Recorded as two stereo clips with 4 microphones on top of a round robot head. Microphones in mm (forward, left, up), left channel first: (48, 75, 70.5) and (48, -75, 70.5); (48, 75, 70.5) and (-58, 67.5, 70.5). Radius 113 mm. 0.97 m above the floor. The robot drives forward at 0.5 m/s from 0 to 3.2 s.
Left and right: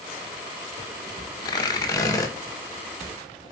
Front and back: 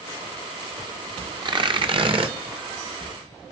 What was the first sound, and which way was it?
Tearing paper, 150° left.